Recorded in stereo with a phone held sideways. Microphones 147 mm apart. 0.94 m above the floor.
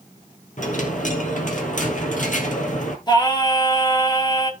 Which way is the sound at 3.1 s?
30° left (ahead or behind).